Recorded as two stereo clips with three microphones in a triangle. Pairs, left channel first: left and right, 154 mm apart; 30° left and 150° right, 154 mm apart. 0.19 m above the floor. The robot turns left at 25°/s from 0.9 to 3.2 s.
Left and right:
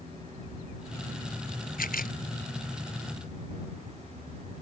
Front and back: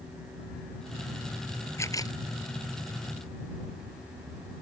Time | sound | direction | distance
1.8 | a camera shutter | 100° left | ?